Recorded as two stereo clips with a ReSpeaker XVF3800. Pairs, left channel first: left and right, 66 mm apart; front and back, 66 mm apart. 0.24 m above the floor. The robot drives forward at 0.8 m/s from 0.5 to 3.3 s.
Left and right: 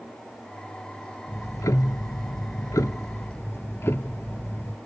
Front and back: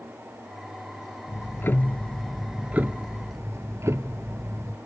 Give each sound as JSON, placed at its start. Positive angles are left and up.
{"t": 1.3, "sound": "ticking", "azimuth_deg": 40, "distance_m": 1.1}